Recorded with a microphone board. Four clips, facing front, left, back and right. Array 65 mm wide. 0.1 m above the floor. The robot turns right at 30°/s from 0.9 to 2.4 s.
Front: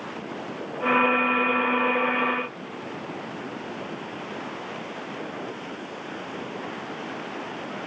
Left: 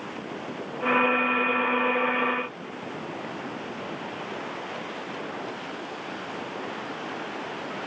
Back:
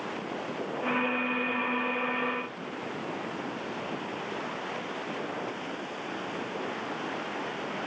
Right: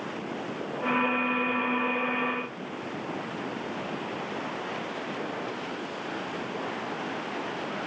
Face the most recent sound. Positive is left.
No sound to turn to.